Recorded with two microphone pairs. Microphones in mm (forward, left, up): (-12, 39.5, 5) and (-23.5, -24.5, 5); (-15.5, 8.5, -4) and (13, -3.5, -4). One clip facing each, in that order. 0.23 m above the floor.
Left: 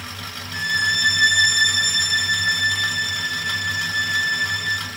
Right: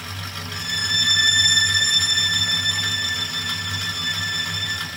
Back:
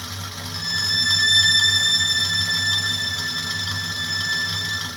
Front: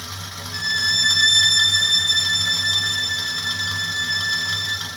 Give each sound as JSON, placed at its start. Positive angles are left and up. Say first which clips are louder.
{"t": 0.5, "sound": "a violin", "louder": "left 6 dB, front 3 dB", "azimuth_deg": 25, "distance_m": 7.5}